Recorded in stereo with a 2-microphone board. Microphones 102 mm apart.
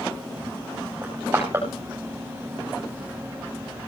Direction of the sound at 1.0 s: 25° right (ahead or behind).